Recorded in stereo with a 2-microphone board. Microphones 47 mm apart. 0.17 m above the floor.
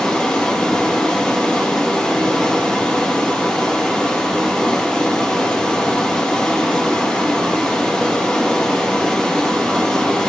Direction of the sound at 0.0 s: 20° left (ahead or behind).